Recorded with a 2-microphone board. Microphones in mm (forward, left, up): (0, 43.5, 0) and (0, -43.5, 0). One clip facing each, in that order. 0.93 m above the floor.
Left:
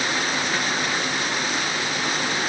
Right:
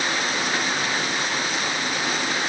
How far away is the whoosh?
No whoosh in this recording.